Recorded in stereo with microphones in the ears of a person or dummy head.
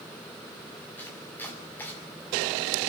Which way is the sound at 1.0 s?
10° left (ahead or behind).